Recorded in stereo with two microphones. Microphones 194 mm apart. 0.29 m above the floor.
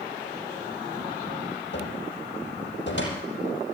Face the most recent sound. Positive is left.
turn(degrees=70)  # may be behind; listen again after turning